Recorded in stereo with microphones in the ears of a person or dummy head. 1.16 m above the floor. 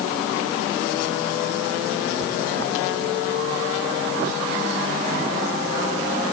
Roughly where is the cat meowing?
No cat meowing in this recording.